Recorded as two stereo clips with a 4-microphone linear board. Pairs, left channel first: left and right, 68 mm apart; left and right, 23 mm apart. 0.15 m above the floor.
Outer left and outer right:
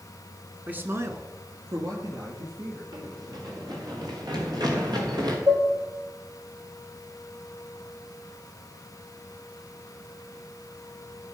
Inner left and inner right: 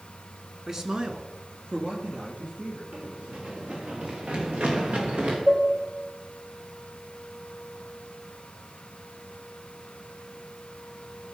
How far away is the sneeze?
No sneeze in this recording.